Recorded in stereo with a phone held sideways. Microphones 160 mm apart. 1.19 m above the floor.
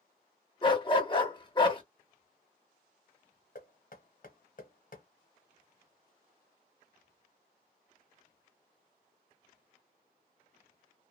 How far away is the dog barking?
About 0.9 m.